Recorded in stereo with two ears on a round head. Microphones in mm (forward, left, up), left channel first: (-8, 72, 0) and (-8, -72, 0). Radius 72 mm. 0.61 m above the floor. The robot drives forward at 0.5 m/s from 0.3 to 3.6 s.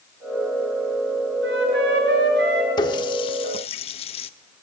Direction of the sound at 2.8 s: 30° left (ahead or behind).